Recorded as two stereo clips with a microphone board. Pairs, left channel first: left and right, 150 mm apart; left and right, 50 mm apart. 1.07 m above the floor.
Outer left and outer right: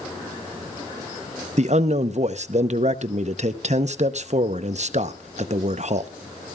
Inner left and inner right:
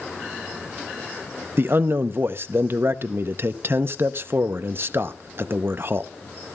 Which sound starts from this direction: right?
A man speaking, at 1.6 s.